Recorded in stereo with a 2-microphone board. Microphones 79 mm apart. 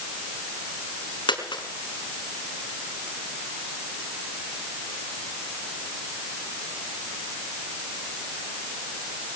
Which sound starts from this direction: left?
A dropped coin, at 1.3 s.